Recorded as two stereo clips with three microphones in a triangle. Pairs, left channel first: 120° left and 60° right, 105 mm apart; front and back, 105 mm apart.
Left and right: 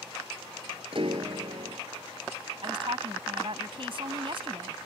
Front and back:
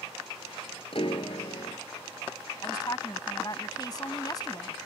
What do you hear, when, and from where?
0.9 s a piano: 30° right
2.6 s a woman speaking: 45° right